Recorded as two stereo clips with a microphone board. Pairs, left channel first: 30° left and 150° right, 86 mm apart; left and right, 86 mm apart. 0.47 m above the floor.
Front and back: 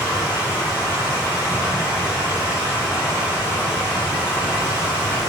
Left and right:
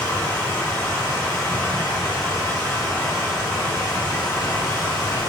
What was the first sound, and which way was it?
Running water, 70° left.